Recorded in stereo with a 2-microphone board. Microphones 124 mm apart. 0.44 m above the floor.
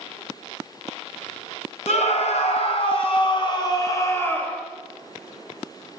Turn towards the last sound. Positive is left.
turn(degrees=10)  # may be behind; listen again after turning